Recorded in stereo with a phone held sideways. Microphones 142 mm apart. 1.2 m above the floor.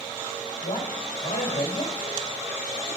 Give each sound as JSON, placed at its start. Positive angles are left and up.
{"t": 0.6, "sound": "a man speaking", "side_deg": 85, "distance_m": 1.7}